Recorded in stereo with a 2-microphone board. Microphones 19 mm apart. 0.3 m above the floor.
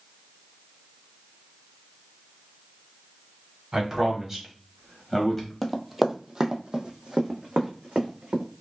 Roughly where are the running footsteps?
Centre.